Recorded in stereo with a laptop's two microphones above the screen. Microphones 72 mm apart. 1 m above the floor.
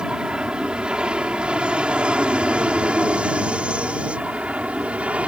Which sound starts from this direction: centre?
An aircraft, at 0.0 s.